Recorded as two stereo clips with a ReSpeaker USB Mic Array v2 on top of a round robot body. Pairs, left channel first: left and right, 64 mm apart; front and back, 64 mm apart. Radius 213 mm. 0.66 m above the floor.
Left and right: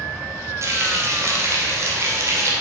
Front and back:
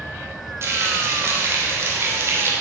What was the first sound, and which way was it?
Frying, 130° right.